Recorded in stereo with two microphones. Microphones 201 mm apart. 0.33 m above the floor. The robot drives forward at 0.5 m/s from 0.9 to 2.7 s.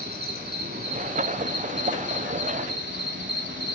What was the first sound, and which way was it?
An insect, 55° right (ahead or behind).